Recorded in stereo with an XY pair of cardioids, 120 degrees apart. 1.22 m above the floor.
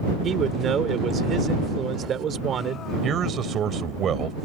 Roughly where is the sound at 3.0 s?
Ahead right.